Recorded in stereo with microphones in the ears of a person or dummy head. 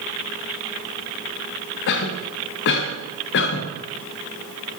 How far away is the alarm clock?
I don't hear an alarm clock.